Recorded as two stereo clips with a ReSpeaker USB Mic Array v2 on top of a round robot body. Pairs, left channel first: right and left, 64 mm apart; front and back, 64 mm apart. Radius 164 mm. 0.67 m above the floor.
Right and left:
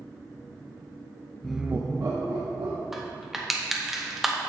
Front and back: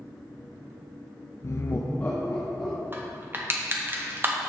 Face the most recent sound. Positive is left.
turn(degrees=175)